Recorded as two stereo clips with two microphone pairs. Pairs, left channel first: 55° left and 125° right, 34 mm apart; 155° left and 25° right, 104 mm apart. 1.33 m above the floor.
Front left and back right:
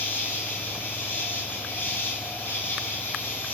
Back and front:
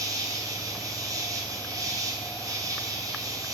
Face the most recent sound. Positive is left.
turn(degrees=30)